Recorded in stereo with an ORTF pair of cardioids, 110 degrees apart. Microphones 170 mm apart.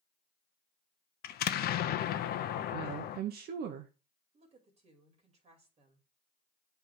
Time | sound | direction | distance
1.2 | an explosion | 65° left | 0.9 m
2.7 | a woman speaking | 65° right | 1.0 m
4.3 | a woman speaking | 40° right | 3 m